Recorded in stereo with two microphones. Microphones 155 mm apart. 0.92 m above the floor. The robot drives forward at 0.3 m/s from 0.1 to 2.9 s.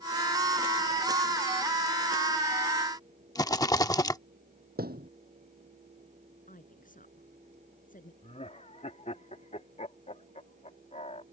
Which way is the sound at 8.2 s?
45° left (ahead or behind).